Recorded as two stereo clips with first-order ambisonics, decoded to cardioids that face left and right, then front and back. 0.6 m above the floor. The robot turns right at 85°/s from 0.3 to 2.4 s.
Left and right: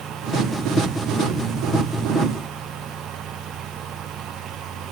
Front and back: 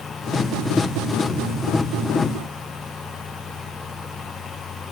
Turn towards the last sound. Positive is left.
No sound to turn to.